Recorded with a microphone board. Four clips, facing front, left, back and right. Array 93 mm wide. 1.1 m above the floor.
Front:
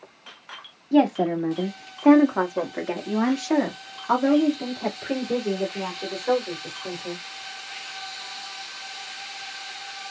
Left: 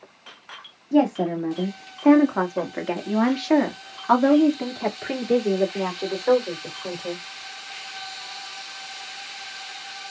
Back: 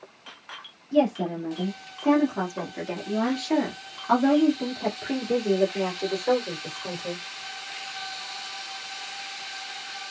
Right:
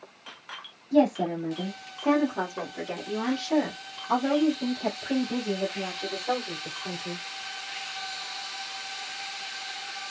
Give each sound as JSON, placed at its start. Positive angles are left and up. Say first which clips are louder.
{"t": 0.9, "sound": "a woman speaking", "louder": "left 2 dB, front 3 dB", "azimuth_deg": 25, "distance_m": 2.0}